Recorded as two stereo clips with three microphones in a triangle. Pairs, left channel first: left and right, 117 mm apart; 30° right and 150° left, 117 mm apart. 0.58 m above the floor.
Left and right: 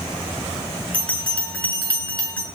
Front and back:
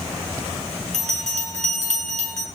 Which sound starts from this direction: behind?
A bell, at 0.9 s.